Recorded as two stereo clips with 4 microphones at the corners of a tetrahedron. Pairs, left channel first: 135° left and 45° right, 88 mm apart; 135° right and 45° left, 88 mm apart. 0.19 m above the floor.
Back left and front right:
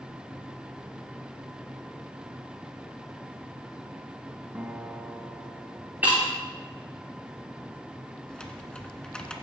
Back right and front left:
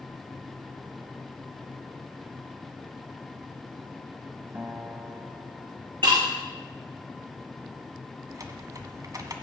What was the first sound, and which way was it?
A guitar, 5° left.